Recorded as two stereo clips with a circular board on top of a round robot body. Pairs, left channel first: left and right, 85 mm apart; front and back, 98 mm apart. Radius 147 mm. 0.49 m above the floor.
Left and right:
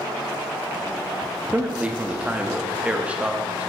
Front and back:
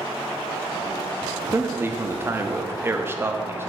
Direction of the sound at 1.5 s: 145° right.